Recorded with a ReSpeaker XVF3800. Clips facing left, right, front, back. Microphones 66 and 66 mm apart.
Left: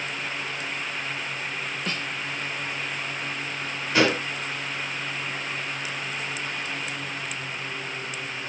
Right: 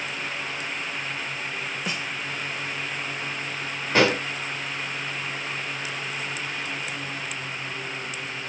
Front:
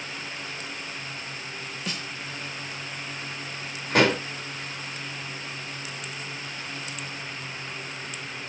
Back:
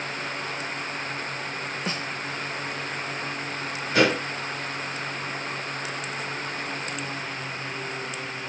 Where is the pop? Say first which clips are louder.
Right 1 dB, even; 35° right, 5 m.